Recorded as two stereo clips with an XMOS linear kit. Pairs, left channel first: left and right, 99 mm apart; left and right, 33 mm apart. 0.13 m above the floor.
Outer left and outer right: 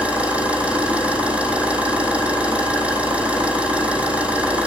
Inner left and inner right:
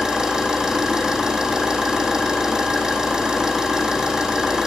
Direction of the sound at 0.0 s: 15° right (ahead or behind).